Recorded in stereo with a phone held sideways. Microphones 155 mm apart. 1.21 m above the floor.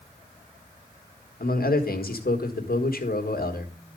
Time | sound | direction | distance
1.4 | a man speaking | 75° left (ahead or behind) | 1.4 m